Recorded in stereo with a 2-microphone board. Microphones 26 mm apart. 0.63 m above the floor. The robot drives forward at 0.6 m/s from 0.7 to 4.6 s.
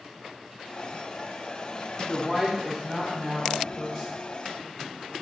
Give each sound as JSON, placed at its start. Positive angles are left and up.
{"t": 2.1, "sound": "a woman speaking", "side_deg": 10, "distance_m": 0.8}